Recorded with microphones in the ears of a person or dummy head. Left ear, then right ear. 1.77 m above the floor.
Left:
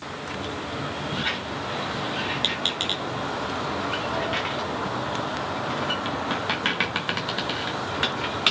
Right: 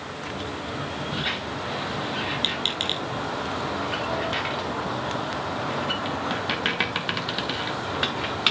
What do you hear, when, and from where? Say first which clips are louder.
1.1 s a squeak: even; 5° left (ahead or behind), 1.0 m